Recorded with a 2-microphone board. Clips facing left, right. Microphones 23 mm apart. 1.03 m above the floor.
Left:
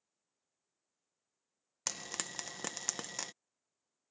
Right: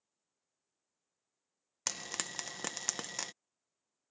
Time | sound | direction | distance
1.9 | frying | 10° right (ahead or behind) | ?